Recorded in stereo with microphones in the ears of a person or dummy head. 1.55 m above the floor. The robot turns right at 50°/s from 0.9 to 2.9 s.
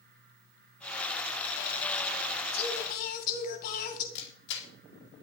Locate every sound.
2.5 s singing: 30° left (ahead or behind), 2 m; by 4.0 s 50° left (ahead or behind), 2 m
4.2 s a camera shutter: 65° left (ahead or behind), 4 m